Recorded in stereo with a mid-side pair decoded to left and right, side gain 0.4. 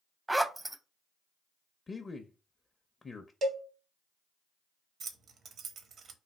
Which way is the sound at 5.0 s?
65° right.